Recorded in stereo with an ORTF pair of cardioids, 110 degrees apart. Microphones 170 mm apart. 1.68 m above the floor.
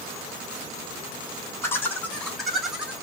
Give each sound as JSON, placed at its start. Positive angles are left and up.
{"t": 1.6, "sound": "laughter", "azimuth_deg": 15, "distance_m": 1.6}